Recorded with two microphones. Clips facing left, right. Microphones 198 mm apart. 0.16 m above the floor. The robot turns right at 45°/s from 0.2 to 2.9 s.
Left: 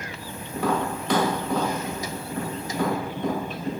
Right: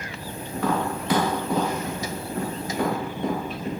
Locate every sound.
0.5 s tapping: 15° left (ahead or behind), 1.1 m; by 3.7 s 45° right (ahead or behind), 1.1 m